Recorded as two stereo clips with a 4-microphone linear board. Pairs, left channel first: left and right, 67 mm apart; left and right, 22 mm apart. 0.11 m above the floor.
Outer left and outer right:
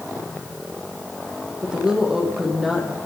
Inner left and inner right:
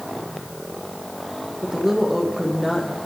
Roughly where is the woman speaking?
Centre.